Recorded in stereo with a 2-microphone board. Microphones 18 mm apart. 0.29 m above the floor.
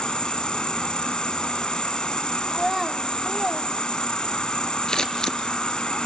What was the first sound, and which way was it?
An insect, 65° left (ahead or behind).